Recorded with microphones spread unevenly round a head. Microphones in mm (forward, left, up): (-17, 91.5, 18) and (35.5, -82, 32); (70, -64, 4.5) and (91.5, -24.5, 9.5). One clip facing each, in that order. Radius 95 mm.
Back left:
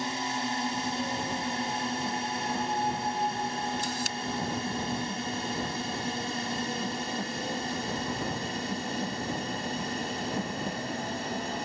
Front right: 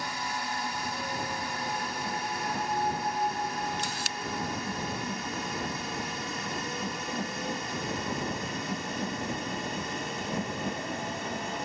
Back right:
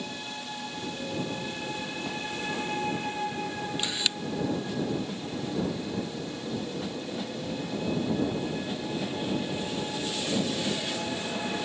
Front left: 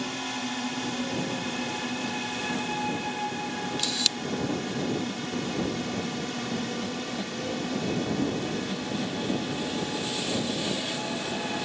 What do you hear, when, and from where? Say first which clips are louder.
0.0 s a drone: back left 4 dB, front left 5 dB; 45° left; by 11.7 s 50° left
3.8 s a camera shutter: back left 3 dB, front left 1 dB; 45° right